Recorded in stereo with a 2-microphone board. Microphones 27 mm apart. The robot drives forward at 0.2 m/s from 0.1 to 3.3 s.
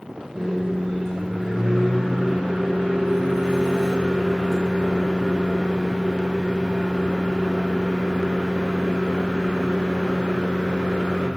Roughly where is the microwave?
Centre.